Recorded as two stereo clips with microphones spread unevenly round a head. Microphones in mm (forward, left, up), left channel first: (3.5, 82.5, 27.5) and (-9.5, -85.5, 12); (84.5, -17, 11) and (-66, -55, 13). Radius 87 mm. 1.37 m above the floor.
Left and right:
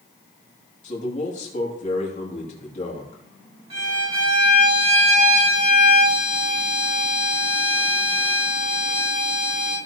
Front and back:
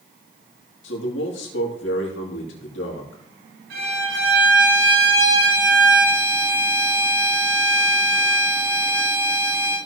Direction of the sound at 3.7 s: 150° right.